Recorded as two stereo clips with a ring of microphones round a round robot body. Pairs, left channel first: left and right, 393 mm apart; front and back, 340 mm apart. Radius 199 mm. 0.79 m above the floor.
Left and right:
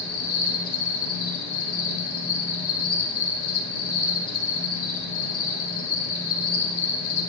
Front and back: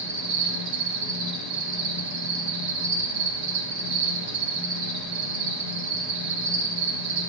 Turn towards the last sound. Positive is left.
turn(degrees=145)